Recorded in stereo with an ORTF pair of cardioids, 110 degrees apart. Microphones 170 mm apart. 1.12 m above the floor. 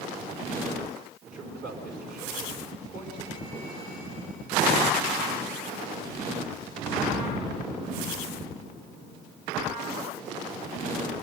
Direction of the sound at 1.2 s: 60° right.